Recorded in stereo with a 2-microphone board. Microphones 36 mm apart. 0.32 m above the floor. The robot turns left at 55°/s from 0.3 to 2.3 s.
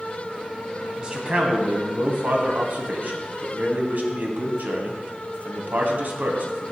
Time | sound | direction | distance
1.0 | a man speaking | 25° right | 1.7 m